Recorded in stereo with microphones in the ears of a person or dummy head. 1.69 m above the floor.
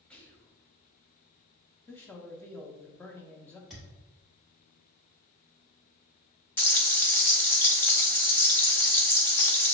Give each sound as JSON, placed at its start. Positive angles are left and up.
{"t": 0.1, "sound": "whispering", "side_deg": 5, "distance_m": 1.1}
{"t": 1.9, "sound": "a man speaking", "side_deg": 10, "distance_m": 0.6}
{"t": 3.7, "sound": "a thud", "side_deg": 0, "distance_m": 1.1}
{"t": 6.6, "sound": "frying", "side_deg": 15, "distance_m": 0.6}